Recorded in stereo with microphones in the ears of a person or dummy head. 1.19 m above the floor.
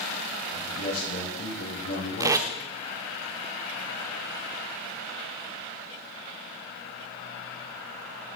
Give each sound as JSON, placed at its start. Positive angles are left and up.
{"t": 0.5, "sound": "a man speaking", "side_deg": 75, "distance_m": 8.0}
{"t": 2.2, "sound": "tape being pulled", "side_deg": -15, "distance_m": 1.0}